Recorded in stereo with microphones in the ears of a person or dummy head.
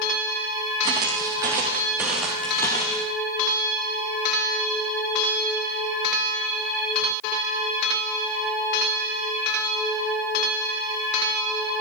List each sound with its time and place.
0.8 s footsteps: 20° right (ahead or behind), 3 m; by 3.1 s 20° left (ahead or behind), 1.6 m